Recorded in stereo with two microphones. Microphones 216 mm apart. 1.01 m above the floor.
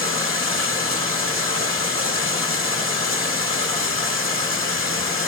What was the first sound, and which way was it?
Running water, 80° right.